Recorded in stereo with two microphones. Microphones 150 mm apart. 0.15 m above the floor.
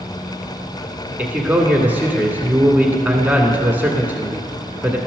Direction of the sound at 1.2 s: 15° right (ahead or behind).